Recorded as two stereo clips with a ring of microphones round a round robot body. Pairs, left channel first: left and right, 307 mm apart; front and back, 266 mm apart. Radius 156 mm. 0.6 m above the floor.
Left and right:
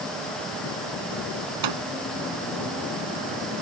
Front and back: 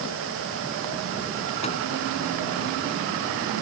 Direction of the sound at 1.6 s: 70° right.